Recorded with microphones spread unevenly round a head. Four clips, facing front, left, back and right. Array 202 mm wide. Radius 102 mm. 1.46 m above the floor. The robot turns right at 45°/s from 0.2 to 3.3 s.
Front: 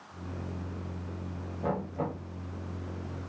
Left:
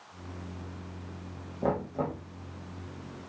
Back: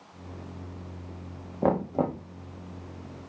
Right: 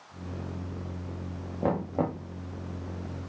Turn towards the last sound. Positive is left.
turn(degrees=-95)